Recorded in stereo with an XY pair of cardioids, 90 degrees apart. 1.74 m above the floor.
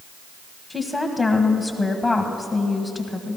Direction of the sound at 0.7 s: 20° left.